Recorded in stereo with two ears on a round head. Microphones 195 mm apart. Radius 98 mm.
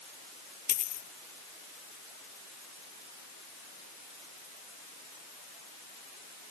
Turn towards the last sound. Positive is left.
turn(degrees=40)  # may be behind; listen again after turning